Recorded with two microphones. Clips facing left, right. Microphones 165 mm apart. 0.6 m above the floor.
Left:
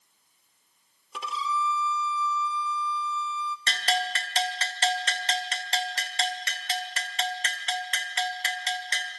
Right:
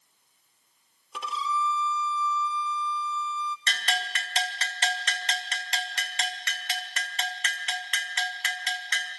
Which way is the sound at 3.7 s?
35° left (ahead or behind).